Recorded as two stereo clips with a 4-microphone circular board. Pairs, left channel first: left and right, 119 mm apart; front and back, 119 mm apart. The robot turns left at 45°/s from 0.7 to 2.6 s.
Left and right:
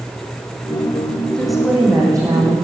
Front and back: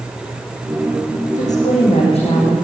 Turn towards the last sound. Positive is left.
turn(degrees=-50)